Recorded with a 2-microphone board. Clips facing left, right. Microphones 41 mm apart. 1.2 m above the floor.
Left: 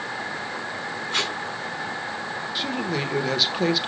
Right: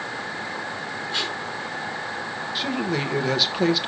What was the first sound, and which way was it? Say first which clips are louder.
Tape being pulled: left 2 dB; 55° left (ahead or behind).